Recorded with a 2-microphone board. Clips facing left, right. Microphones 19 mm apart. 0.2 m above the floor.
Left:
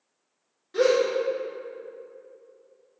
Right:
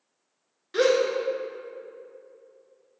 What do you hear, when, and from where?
0.7 s a gasp: 40° right (ahead or behind), 0.5 m